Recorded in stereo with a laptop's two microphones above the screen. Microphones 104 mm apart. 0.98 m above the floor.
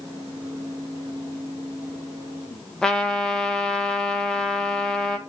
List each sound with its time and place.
0.0 s a fan: 20° left (ahead or behind), 4 m
2.8 s a trumpet: 5° left (ahead or behind), 0.7 m